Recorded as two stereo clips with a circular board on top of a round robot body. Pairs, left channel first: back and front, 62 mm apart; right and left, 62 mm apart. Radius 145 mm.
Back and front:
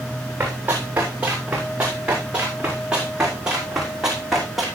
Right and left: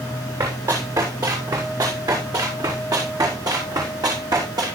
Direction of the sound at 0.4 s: 70° left.